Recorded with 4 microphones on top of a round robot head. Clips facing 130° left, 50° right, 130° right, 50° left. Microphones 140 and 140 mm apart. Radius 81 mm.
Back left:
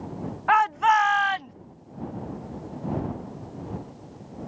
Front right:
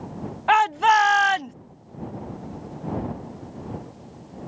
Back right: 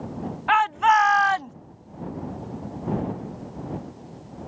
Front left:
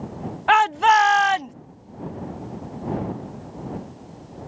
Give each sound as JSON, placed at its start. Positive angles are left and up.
{"t": 0.5, "sound": "a shout", "azimuth_deg": 10}